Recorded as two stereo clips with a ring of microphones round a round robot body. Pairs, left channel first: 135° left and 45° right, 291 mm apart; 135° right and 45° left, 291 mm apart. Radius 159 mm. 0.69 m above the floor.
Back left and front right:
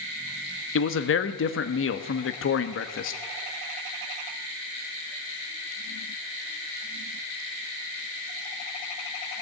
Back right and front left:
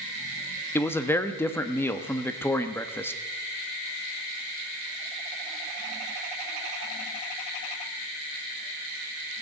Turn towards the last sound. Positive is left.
turn(degrees=145)